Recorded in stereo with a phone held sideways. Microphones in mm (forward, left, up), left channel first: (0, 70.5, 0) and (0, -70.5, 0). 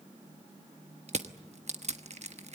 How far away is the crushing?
About 1.1 m.